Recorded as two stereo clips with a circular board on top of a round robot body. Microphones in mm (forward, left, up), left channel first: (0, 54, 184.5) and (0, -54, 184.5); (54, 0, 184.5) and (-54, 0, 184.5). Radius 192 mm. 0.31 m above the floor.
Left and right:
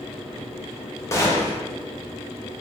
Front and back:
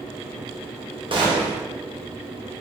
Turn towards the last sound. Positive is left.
turn(degrees=150)